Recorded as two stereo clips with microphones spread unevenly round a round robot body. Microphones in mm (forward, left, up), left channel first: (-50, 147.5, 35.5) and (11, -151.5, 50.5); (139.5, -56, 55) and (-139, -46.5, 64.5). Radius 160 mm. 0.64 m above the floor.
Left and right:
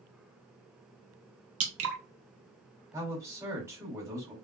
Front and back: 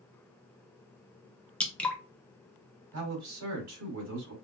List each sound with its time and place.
1.6 s dripping: 85° right, 1.2 m
2.9 s a man speaking: 160° right, 2.5 m